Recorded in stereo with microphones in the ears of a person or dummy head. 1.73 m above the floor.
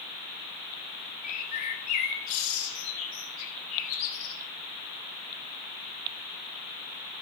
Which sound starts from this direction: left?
A bird, at 1.2 s.